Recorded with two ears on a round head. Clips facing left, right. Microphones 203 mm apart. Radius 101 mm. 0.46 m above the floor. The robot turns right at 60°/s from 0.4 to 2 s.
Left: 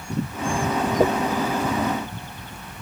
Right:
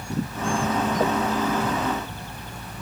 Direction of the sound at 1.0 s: 15° left (ahead or behind).